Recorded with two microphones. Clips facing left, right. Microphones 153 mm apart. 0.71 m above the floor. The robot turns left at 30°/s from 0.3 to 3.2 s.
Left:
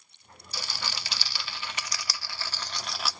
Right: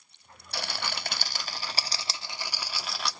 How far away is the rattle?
About 0.6 m.